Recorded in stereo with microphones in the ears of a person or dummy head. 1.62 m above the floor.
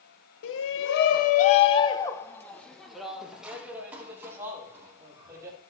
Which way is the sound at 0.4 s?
70° left (ahead or behind).